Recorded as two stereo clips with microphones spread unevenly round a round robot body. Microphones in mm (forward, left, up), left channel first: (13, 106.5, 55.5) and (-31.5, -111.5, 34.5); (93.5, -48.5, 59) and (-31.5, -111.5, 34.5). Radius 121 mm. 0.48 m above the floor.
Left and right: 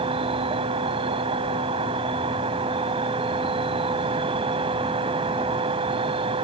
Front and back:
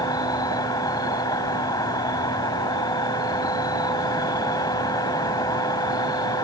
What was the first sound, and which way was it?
An insect, 35° right.